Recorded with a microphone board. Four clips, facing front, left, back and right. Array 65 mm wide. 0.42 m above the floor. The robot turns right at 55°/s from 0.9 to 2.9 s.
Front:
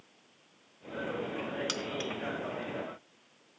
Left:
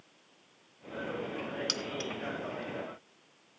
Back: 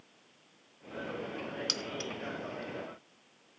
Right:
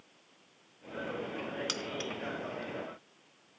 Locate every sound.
1.7 s keys jangling: 35° right, 0.5 m; by 2.1 s 10° right, 0.5 m